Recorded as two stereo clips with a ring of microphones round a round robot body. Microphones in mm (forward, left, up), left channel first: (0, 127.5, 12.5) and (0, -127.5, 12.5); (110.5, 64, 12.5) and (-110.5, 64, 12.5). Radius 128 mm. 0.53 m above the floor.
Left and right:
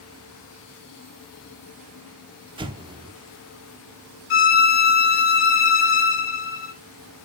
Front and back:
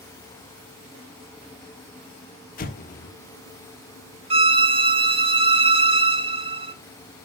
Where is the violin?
120° left, 1.3 m.